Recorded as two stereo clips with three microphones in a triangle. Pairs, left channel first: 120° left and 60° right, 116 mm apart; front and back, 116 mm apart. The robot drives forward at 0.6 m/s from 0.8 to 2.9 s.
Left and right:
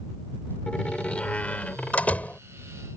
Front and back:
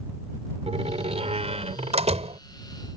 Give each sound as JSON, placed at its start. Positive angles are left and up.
{"t": 0.7, "sound": "a door slam", "azimuth_deg": -160}